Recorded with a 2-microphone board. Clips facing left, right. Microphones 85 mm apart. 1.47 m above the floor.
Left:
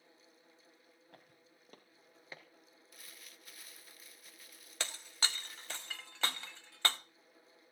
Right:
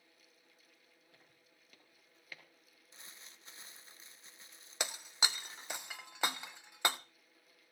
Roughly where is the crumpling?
Right.